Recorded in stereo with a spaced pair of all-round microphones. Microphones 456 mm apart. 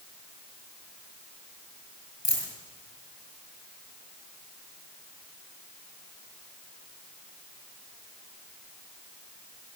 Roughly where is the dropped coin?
Left.